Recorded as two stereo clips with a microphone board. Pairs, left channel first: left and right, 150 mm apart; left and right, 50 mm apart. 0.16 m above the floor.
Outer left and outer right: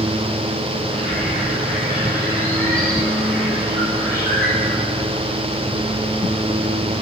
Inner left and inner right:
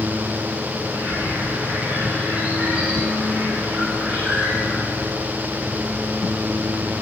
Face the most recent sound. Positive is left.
turn(degrees=-20)  # may be behind; listen again after turning